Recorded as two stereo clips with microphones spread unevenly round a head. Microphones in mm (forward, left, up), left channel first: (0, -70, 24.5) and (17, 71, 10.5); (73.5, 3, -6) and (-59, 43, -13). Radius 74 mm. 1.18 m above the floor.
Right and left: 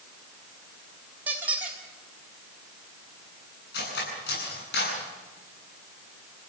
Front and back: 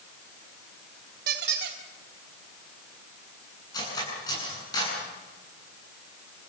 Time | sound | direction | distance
1.3 | a squeak | 165° left | 3 m
3.7 | cutlery clinking | 85° right | 8.5 m